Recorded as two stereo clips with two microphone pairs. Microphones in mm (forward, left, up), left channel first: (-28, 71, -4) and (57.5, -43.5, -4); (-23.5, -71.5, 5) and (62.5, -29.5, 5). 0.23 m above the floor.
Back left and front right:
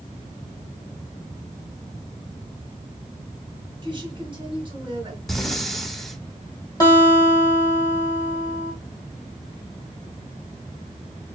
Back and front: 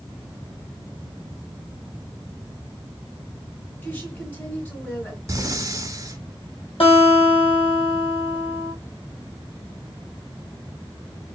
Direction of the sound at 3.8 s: 90° right.